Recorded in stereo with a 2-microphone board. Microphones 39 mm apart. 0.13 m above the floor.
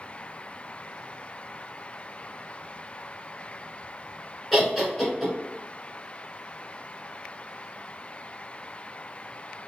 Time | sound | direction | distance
4.5 | laughter | 5° left (ahead or behind) | 1.4 m